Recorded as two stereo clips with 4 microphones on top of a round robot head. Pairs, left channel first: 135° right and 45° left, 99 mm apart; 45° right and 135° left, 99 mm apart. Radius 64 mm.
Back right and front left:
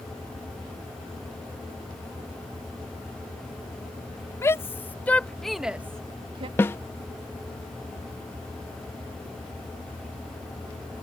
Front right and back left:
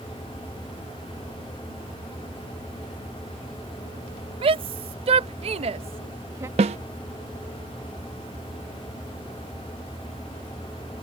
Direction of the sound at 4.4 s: 165° left.